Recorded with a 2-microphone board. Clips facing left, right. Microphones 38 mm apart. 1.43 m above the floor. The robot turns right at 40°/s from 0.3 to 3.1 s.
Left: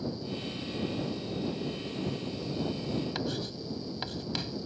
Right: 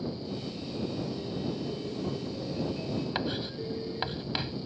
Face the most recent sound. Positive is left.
turn(degrees=-25)  # may be behind; listen again after turning